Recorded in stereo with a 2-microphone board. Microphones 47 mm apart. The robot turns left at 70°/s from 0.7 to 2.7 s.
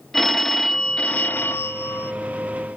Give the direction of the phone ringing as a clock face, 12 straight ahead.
6 o'clock.